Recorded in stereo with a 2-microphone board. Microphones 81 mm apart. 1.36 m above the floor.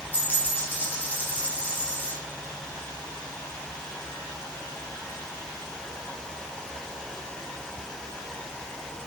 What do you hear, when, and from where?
0.1 s a dropped coin: 20° left (ahead or behind), 2.5 m